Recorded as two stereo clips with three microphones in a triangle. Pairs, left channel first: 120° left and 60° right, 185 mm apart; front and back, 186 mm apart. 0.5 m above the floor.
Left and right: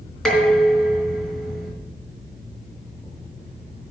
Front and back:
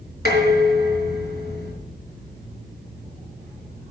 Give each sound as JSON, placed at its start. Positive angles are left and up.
{"t": 0.2, "sound": "dishes clattering", "azimuth_deg": 30, "distance_m": 4.0}